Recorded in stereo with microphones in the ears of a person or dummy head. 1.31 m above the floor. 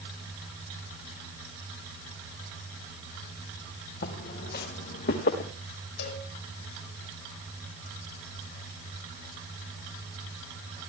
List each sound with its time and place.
4.0 s footsteps: 55° left (ahead or behind), 3.5 m
6.0 s a cowbell: 65° left (ahead or behind), 5 m